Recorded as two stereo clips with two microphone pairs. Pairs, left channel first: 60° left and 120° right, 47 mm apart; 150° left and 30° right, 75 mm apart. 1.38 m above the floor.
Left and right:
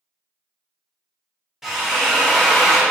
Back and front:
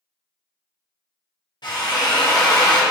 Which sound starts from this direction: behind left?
A drill, at 1.6 s.